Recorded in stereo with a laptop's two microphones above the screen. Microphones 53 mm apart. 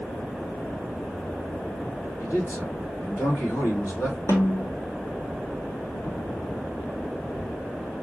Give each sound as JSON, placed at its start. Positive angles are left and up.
{"t": 2.2, "sound": "a man speaking", "side_deg": 70, "distance_m": 3.5}
{"t": 4.3, "sound": "a snare drum", "side_deg": 70, "distance_m": 1.5}